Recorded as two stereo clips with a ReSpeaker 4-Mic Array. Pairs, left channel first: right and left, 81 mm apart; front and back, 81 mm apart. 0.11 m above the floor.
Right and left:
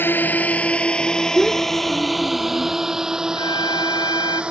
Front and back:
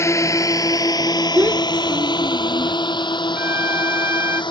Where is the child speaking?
170° right.